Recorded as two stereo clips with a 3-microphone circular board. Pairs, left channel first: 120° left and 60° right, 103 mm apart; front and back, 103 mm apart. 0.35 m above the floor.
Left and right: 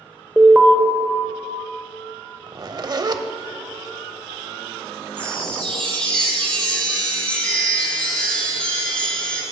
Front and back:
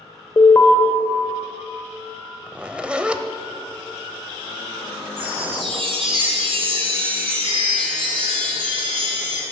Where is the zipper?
100° right, 0.5 m.